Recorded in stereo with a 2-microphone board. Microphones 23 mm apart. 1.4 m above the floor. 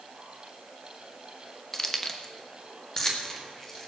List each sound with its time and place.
1.7 s keys jangling: 15° left (ahead or behind), 0.9 m; by 3.9 s 20° left (ahead or behind), 2 m